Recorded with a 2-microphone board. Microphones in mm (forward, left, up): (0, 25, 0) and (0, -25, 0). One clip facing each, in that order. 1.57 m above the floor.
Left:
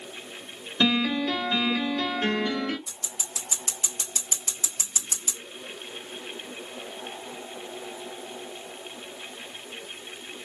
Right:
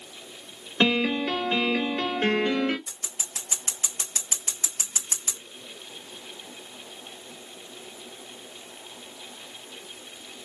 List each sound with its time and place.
0.8 s a piano: 35° right (ahead or behind), 1.8 m
2.9 s scissors: 45° right (ahead or behind), 1.5 m